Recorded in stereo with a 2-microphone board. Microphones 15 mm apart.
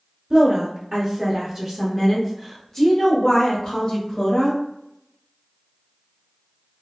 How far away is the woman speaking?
About 1.2 m.